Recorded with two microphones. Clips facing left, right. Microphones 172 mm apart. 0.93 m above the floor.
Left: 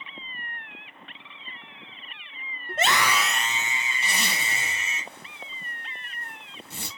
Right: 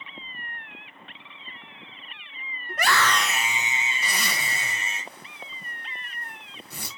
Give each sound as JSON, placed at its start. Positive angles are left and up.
{"t": 2.7, "sound": "a scream", "side_deg": 30, "distance_m": 0.6}
{"t": 4.0, "sound": "a zipper", "side_deg": 25, "distance_m": 2.5}